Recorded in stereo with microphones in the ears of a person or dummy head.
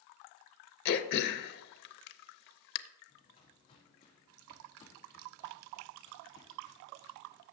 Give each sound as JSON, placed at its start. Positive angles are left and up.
{"t": 0.8, "sound": "throat clearing", "side_deg": 55, "distance_m": 0.6}
{"t": 3.1, "sound": "footsteps", "side_deg": 35, "distance_m": 3.0}